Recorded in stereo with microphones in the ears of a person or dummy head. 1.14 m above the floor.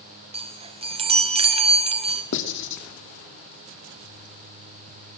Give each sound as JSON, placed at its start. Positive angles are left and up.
{"t": 0.3, "sound": "a chime", "side_deg": -35, "distance_m": 1.4}
{"t": 2.3, "sound": "writing", "side_deg": 70, "distance_m": 2.5}